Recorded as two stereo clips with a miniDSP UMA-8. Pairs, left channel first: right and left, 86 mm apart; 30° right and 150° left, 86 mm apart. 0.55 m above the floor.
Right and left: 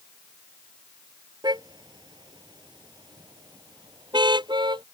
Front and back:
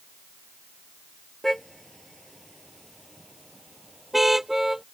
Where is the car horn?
55° left; by 4.8 s 60° left.